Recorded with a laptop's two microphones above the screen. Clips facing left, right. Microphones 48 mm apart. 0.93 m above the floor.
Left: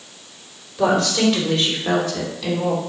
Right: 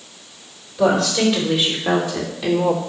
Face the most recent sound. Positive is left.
turn(degrees=-30)  # may be behind; listen again after turning